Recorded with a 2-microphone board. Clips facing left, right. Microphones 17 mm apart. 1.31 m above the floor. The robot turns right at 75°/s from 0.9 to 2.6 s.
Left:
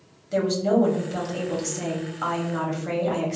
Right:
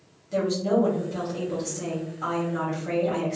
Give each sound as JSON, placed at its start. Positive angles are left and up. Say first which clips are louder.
{"t": 0.3, "sound": "a woman speaking", "louder": "left 2 dB", "azimuth_deg": 25, "distance_m": 0.9}